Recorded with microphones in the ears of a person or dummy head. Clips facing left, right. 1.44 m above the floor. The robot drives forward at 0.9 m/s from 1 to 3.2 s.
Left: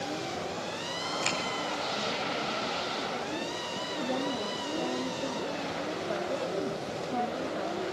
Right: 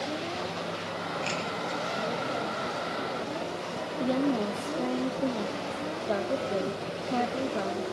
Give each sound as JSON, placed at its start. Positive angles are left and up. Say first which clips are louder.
{"t": 1.2, "sound": "a finger snap", "louder": "even", "side_deg": 60, "distance_m": 4.5}
{"t": 4.0, "sound": "a woman speaking", "louder": "right 6 dB", "side_deg": -50, "distance_m": 0.8}